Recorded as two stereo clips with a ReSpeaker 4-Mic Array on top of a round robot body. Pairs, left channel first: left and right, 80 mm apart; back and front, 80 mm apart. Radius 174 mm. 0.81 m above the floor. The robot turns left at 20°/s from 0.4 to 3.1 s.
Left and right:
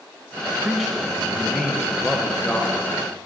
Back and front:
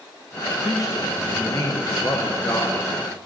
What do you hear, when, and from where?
0.6 s a man speaking: 175° right, 1.1 m; by 3.2 s 140° left, 1.1 m